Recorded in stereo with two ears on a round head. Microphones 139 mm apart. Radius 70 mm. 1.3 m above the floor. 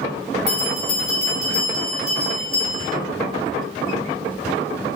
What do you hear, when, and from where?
0.5 s a bell: 60° left (ahead or behind), 2 m